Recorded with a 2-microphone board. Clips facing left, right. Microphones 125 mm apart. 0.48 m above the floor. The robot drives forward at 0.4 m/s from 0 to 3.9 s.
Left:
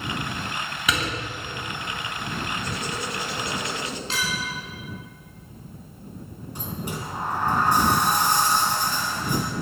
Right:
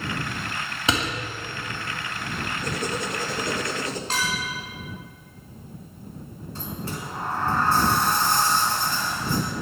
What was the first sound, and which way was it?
A door slam, 30° right (ahead or behind).